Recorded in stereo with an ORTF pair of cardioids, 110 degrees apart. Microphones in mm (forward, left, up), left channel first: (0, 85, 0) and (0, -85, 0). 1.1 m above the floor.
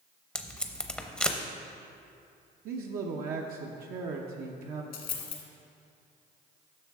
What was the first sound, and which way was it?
Tape being pulled, 5° left.